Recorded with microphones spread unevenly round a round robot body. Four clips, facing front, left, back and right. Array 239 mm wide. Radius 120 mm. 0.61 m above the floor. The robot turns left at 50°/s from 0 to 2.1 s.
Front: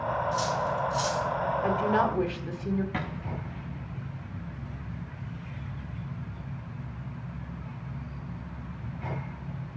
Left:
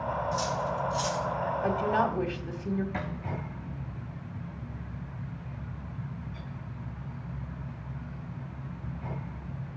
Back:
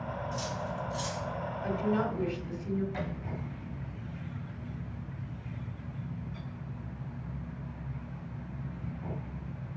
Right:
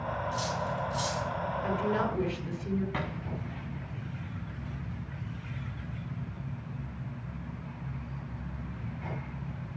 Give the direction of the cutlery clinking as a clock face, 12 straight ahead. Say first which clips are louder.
Left 3 dB, front 8 dB; 10 o'clock.